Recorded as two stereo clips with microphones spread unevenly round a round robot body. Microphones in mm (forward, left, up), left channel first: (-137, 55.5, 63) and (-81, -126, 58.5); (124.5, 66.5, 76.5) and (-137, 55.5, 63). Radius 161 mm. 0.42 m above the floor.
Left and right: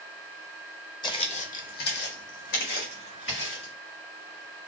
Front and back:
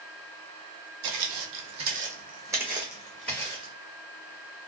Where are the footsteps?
175° left, 0.9 m; by 3.7 s 80° left, 1.7 m.